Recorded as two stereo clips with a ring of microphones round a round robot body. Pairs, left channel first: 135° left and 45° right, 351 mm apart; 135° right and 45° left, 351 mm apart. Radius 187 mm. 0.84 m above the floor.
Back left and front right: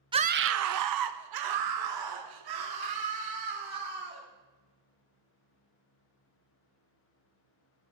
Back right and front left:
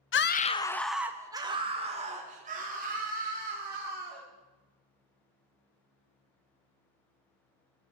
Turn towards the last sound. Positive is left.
turn(degrees=-20)